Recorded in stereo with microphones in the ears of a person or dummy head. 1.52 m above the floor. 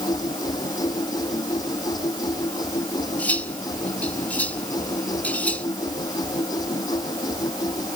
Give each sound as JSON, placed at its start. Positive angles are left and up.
{"t": 0.0, "sound": "a machine running", "side_deg": 25}
{"t": 3.2, "sound": "cutlery clinking", "side_deg": 10}